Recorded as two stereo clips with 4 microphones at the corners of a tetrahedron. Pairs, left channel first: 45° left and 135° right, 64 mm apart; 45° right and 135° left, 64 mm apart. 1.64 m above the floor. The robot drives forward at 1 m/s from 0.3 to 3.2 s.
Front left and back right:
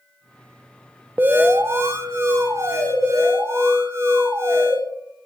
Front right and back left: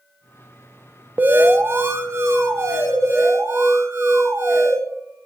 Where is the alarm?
Straight behind, 0.8 m.